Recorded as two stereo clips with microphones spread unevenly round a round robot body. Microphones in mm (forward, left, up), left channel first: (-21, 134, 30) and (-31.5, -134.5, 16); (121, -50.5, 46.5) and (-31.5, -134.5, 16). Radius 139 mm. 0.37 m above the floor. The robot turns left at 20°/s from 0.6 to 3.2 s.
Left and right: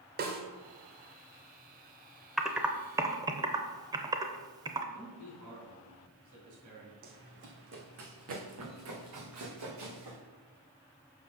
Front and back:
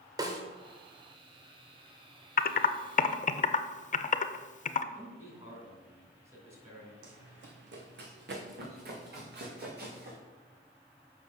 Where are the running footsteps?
150° right, 1.1 m; by 10.2 s 120° right, 3 m.